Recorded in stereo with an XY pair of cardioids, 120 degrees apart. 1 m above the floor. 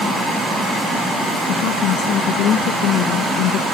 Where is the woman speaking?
70° left; by 3.6 s 75° left.